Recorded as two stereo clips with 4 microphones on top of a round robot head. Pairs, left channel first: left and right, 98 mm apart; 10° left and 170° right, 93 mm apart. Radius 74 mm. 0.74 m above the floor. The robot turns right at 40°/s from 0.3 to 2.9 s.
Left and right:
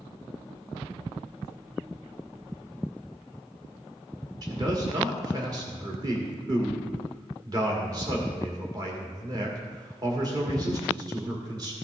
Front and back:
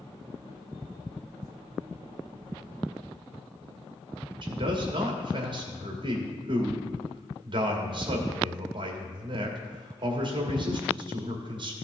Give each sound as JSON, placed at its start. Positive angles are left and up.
{"t": 4.4, "sound": "a man speaking", "azimuth_deg": -140, "distance_m": 1.8}